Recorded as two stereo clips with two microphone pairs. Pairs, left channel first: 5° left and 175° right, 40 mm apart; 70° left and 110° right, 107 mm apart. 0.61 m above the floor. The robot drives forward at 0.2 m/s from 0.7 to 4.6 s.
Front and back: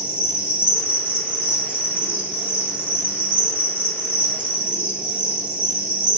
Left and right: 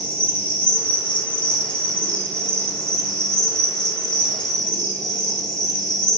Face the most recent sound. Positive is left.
turn(degrees=155)